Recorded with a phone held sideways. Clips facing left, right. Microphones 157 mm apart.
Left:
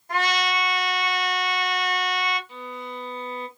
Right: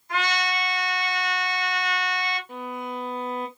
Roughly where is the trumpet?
Left.